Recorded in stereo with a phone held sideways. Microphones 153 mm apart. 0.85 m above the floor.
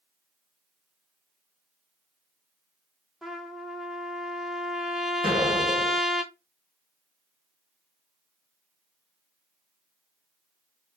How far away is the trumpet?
About 0.6 m.